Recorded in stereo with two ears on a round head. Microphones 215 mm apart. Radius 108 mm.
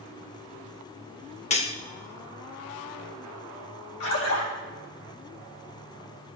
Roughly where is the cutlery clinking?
Left.